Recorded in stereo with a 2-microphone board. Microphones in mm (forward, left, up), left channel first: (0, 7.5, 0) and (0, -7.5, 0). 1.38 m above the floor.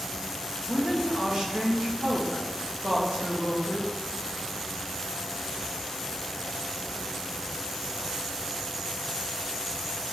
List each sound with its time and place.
0.7 s a woman speaking: 75° right (ahead or behind), 2.5 m; by 3.9 s 50° right (ahead or behind), 2 m